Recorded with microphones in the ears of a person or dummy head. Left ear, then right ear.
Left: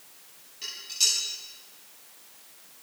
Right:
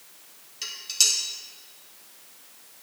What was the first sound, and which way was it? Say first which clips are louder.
Dishes clattering: right 3 dB; 30° right (ahead or behind).